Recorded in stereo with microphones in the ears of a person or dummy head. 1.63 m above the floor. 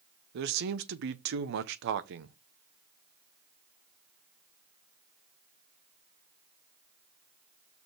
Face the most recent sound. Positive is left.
turn(degrees=-65)  # may be behind; listen again after turning